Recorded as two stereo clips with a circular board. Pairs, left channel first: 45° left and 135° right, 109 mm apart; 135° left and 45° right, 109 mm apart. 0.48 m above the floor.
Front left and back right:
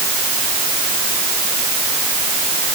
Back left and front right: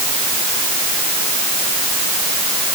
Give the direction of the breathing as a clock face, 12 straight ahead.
I don't hear breathing.